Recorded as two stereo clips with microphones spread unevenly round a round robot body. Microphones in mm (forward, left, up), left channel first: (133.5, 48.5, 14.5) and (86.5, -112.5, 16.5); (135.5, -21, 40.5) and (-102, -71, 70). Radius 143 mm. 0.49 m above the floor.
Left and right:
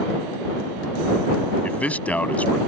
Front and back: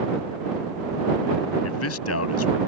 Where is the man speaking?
10° right.